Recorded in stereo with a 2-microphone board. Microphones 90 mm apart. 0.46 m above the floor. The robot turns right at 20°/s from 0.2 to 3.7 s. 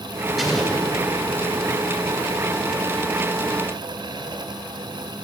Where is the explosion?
5° right (ahead or behind), 4 m; by 0.9 s 5° left (ahead or behind), 4 m.